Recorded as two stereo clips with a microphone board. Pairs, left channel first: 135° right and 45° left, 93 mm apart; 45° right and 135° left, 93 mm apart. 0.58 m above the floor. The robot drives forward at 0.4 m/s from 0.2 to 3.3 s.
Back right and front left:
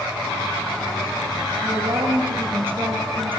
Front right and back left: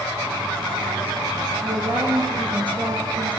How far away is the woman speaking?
About 7.5 m.